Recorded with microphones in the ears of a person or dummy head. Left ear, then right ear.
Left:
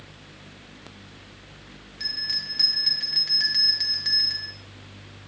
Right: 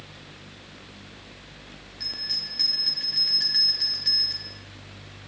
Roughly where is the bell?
Left.